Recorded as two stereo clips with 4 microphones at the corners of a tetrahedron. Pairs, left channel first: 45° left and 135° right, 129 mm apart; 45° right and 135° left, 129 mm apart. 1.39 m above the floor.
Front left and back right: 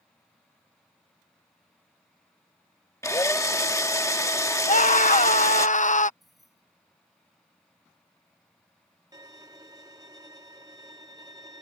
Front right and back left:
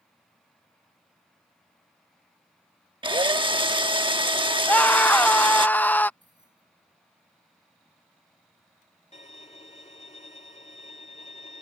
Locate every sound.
3.0 s a drill: 100° left
4.7 s a scream: 30° left
6.2 s keys jangling: 135° left
9.1 s a violin: 75° right